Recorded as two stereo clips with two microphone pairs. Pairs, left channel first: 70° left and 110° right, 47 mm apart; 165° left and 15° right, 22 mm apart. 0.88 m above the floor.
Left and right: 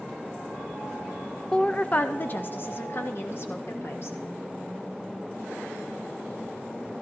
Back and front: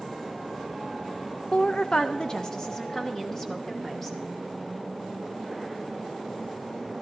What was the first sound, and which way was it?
A woman speaking, 140° left.